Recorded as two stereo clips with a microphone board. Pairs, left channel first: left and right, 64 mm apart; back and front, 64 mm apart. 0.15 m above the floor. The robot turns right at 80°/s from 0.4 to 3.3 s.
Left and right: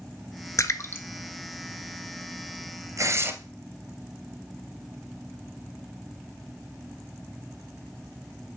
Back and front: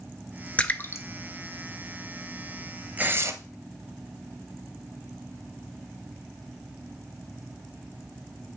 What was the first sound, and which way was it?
A splash, 115° left.